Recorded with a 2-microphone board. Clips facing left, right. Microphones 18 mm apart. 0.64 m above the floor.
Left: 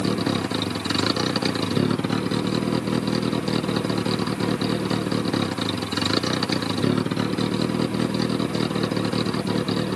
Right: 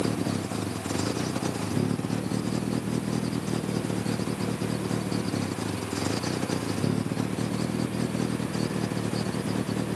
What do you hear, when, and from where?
0.0 s a vehicle: 80° left